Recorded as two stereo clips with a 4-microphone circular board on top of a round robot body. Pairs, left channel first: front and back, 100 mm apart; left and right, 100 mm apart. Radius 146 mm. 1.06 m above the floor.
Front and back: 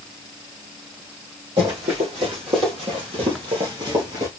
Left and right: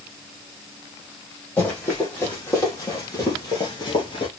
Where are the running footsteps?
160° left, 3 m; by 4.3 s 130° left, 1.7 m.